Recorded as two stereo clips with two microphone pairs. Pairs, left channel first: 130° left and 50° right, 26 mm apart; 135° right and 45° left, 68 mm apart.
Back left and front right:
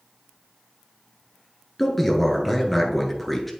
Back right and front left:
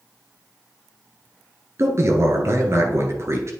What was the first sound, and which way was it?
A man speaking, 45° left.